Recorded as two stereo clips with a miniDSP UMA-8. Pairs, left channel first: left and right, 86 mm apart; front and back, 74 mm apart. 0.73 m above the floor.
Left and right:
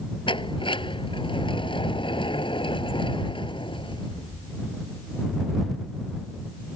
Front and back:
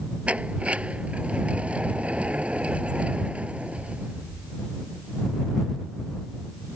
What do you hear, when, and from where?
0.3 s a sliding door: 105° left